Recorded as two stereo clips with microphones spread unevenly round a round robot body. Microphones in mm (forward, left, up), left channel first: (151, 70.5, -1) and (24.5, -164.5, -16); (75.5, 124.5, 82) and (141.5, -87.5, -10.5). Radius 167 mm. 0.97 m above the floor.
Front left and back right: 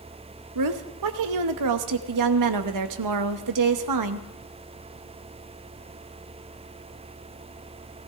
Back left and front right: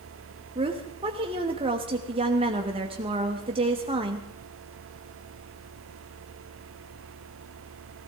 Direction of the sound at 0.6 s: 135° right.